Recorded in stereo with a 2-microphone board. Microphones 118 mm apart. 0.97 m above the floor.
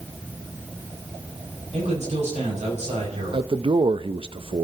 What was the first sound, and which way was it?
A man speaking, 75° right (ahead or behind).